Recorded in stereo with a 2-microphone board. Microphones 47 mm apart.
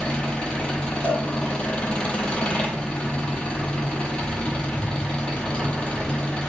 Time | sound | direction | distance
0.0 | an engine running | 20° left (ahead or behind) | 0.8 m
1.0 | a cowbell | 40° right (ahead or behind) | 1.4 m